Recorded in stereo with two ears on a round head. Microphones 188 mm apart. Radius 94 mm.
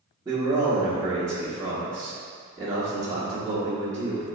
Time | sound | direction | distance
0.2 | a man speaking | 15° right (ahead or behind) | 0.8 m